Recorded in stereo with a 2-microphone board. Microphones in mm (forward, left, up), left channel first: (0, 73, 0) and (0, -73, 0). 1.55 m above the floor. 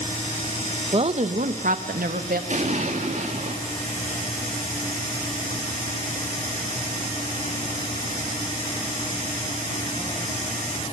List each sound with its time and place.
0.9 s a woman speaking: 40° right (ahead or behind), 1.5 m; by 2.4 s 80° right, 2.5 m
2.5 s an explosion: 55° right (ahead or behind), 3.5 m